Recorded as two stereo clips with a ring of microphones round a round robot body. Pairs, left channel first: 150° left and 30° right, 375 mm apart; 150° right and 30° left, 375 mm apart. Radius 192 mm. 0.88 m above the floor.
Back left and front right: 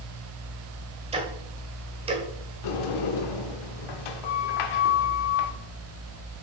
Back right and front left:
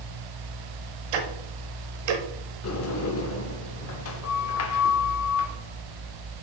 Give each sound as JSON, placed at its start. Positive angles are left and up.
{"t": 1.1, "sound": "ticking", "azimuth_deg": 45, "distance_m": 1.2}
{"t": 2.6, "sound": "a sliding door", "azimuth_deg": 160, "distance_m": 0.7}